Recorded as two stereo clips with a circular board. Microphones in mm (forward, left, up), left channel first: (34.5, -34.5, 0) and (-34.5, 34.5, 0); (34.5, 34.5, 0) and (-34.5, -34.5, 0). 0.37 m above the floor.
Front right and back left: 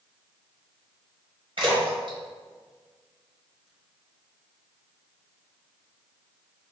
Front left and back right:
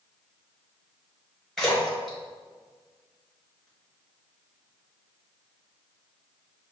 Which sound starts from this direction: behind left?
A splash, at 1.6 s.